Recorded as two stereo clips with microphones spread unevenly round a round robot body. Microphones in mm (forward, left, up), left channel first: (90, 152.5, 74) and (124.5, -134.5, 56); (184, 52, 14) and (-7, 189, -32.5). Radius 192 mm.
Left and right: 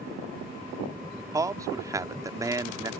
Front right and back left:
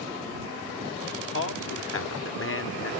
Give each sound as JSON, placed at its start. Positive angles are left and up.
{"t": 1.3, "sound": "a man speaking", "azimuth_deg": -10}